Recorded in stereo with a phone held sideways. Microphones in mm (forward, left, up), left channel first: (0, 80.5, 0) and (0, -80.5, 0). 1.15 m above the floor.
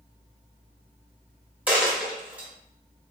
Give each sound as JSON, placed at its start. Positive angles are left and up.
{"t": 1.7, "sound": "a dropped coin", "side_deg": -10, "distance_m": 0.8}